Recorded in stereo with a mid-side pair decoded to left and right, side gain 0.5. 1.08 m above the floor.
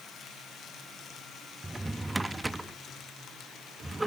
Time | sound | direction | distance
1.6 | a drawer | 10° right | 0.8 m